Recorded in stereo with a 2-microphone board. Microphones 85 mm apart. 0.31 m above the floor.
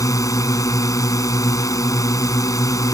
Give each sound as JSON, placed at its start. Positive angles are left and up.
{"t": 0.0, "sound": "a drone", "side_deg": 45}